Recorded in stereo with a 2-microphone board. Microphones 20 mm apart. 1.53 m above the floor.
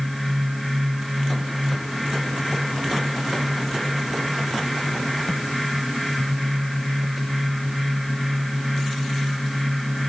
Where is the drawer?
I don't hear a drawer.